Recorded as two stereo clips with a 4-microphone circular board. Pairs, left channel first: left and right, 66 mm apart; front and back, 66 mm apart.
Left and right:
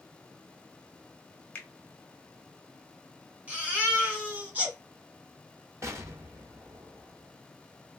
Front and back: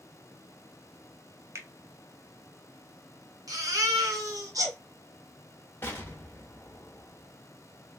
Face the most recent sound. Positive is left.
turn(degrees=-50)